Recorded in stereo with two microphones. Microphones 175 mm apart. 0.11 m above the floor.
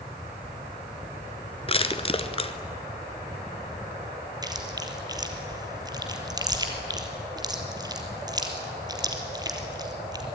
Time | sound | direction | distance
1.7 | crushing | 30° left (ahead or behind) | 1.4 m
4.4 | chewing | 20° right (ahead or behind) | 3 m